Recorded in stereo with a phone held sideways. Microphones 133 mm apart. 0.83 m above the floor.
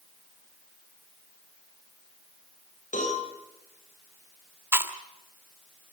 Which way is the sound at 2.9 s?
70° left (ahead or behind).